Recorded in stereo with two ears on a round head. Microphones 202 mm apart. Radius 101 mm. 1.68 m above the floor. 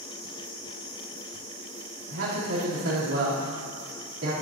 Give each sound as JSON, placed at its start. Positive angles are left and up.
{"t": 2.1, "sound": "a man speaking", "side_deg": -65, "distance_m": 4.0}